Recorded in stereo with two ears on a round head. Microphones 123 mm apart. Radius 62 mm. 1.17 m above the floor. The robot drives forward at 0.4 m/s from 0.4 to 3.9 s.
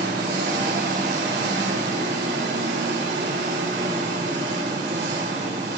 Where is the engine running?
75° right (ahead or behind), 4 m; by 5.8 s 85° right, 4 m.